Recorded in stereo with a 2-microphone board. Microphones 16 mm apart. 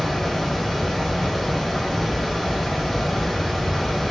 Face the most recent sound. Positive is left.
turn(degrees=10)  # may be behind; listen again after turning